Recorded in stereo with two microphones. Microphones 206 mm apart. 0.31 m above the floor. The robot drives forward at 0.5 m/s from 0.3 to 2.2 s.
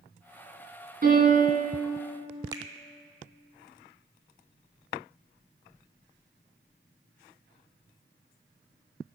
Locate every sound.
1.0 s a piano: 45° right (ahead or behind), 3 m; by 1.7 s 50° right (ahead or behind), 3 m
2.5 s a finger snap: 20° right (ahead or behind), 1.0 m